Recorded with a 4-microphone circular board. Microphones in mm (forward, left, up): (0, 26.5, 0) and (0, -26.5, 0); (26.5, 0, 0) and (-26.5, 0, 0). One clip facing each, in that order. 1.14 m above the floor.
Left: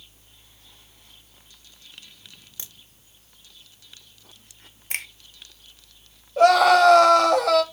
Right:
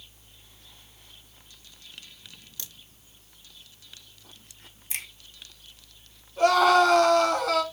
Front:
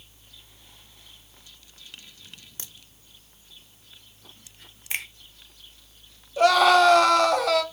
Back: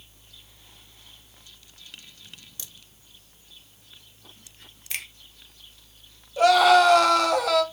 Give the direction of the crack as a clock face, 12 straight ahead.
11 o'clock.